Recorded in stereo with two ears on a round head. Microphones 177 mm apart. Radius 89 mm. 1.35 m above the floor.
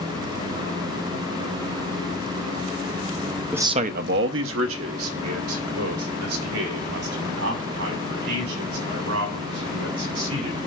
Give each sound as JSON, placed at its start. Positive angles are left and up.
{"t": 3.5, "sound": "a man speaking", "side_deg": -5, "distance_m": 0.6}